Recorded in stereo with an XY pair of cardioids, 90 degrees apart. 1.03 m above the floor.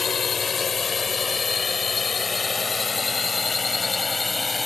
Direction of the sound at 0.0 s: 40° left.